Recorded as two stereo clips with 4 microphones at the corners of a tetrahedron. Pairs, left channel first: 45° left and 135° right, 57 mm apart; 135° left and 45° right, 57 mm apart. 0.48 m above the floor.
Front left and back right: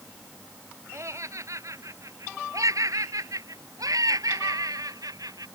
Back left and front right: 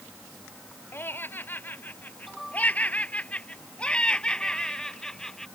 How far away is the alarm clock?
I don't hear an alarm clock.